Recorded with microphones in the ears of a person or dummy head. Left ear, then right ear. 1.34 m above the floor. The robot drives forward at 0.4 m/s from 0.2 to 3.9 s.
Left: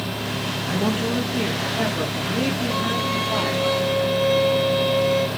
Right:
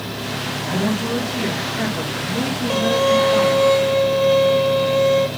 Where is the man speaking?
15° left (ahead or behind), 3 m; by 3.7 s 10° left (ahead or behind), 4.5 m.